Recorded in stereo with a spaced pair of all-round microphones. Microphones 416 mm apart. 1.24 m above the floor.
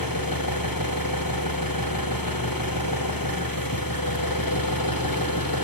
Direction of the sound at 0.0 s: 55° left (ahead or behind).